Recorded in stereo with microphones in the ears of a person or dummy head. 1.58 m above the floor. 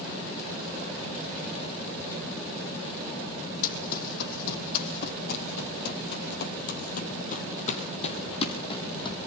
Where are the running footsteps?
50° left (ahead or behind), 3.5 m; by 9.2 s 30° left (ahead or behind), 4 m.